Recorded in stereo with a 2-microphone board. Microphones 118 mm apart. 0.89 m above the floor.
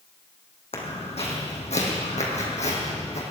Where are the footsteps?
55° left (ahead or behind), 3 m; by 3.2 s 65° left (ahead or behind), 3 m.